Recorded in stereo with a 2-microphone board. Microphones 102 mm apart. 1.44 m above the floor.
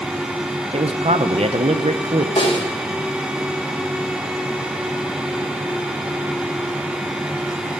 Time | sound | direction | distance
0.7 | a man speaking | 80° right | 0.9 m
2.4 | a snare drum | 75° left (ahead or behind) | 4 m